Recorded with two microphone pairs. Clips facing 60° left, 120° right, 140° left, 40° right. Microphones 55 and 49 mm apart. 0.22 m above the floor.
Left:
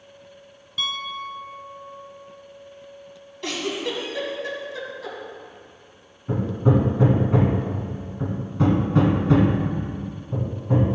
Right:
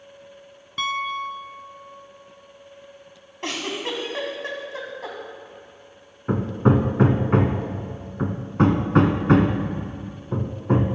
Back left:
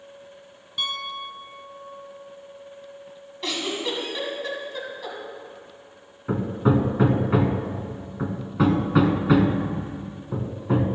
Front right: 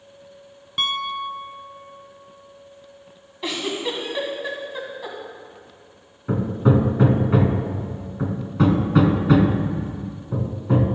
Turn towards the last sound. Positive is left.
turn(degrees=-135)